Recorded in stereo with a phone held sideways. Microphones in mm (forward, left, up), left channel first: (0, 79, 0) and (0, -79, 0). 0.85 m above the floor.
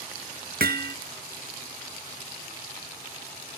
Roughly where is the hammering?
Right.